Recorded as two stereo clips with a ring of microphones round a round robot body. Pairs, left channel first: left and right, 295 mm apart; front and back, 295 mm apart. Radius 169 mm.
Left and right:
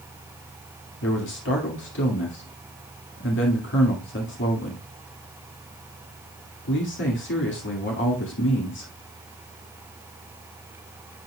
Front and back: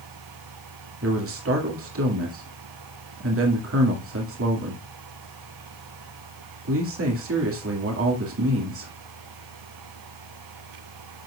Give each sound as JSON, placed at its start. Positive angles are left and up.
{"t": 1.0, "sound": "a man speaking", "azimuth_deg": 140, "distance_m": 1.9}